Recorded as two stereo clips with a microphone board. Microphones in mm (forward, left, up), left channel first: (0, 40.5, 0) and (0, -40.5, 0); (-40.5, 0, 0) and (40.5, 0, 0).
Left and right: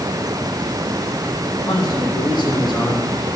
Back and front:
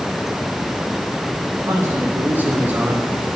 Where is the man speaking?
60° left, 5.5 m; by 3.1 s 75° left, 4 m.